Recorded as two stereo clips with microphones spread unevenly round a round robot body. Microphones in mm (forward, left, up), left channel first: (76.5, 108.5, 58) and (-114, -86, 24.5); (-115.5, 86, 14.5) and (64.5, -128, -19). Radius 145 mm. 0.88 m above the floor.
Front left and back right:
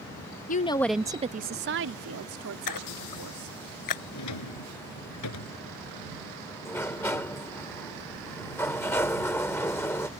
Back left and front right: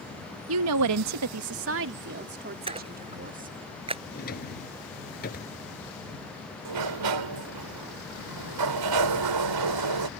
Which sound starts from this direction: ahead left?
A splash, at 2.7 s.